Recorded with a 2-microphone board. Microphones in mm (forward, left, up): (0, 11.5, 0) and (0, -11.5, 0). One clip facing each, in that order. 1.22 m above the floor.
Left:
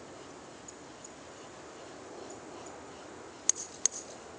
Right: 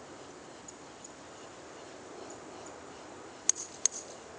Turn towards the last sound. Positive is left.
No sound to turn to.